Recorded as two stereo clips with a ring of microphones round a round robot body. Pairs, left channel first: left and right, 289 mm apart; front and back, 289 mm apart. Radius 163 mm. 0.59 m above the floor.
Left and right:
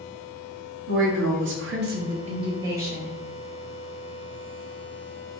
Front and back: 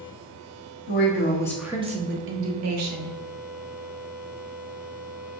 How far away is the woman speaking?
About 0.9 m.